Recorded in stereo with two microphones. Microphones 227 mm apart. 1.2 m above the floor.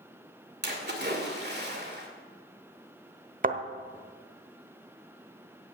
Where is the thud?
40° right (ahead or behind), 1.1 m.